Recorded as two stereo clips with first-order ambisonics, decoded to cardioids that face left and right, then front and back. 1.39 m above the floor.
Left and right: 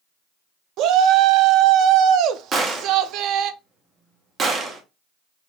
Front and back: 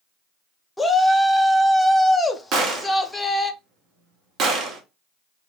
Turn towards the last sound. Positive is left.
turn(degrees=-145)